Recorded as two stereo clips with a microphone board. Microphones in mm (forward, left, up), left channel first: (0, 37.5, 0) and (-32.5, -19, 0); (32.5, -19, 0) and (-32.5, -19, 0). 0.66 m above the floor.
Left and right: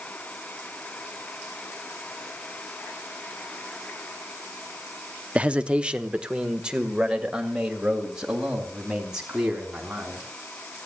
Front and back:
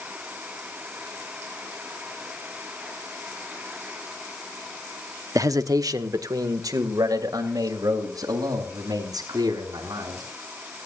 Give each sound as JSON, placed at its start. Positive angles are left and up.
{"t": 5.3, "sound": "a man speaking", "azimuth_deg": 170, "distance_m": 0.8}